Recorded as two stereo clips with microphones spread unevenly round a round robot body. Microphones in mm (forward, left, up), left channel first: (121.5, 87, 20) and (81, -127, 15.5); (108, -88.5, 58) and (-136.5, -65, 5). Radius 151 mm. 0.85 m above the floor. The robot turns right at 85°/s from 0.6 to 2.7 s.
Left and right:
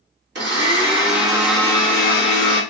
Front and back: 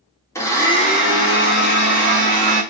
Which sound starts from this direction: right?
A blender, at 0.3 s.